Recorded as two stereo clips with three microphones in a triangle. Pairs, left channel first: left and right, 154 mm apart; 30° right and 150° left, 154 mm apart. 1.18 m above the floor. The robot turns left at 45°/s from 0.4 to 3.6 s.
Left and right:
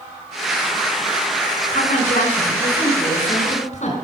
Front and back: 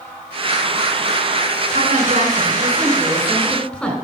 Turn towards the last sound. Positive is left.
turn(degrees=50)